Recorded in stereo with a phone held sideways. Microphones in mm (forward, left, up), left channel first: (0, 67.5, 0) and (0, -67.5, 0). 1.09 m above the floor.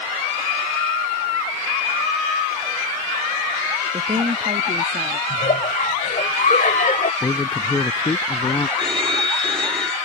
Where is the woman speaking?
40° right (ahead or behind); by 5.2 s 60° right (ahead or behind).